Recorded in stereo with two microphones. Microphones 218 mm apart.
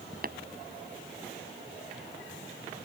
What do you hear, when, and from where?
0.2 s tapping: 45° right (ahead or behind)